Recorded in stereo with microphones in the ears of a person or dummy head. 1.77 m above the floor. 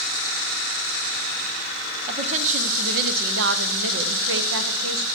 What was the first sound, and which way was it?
A woman speaking, 40° right (ahead or behind).